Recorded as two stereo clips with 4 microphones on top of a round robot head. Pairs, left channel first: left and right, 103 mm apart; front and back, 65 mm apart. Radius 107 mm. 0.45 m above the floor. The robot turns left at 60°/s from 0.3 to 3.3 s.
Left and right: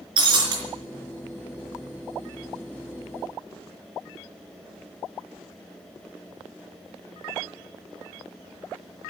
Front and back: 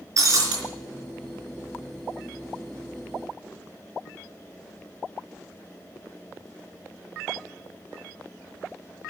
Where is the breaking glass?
135° right, 4 m; by 0.6 s 150° right, 4 m.